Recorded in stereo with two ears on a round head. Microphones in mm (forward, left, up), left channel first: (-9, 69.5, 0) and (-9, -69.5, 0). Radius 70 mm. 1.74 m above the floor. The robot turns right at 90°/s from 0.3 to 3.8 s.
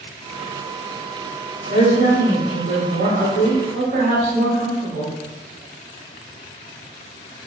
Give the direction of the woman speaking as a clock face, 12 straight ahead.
8 o'clock.